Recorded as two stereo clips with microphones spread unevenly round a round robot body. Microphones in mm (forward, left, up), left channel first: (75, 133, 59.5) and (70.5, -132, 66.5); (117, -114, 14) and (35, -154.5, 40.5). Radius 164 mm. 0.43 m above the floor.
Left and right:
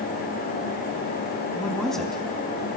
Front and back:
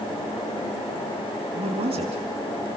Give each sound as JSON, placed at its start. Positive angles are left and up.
{"t": 1.5, "sound": "a man speaking", "azimuth_deg": 180, "distance_m": 4.5}